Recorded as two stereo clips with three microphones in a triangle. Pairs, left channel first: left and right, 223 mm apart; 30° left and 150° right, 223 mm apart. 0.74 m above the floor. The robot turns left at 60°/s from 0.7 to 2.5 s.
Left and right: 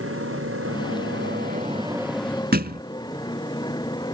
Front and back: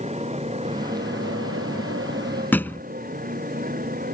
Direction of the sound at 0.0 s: 90° right.